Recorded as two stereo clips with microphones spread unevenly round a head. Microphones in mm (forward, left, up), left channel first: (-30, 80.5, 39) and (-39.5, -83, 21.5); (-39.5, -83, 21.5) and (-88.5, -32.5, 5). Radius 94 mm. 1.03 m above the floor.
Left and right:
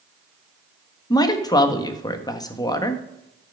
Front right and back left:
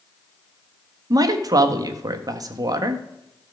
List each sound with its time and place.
1.1 s a man speaking: 155° left, 1.3 m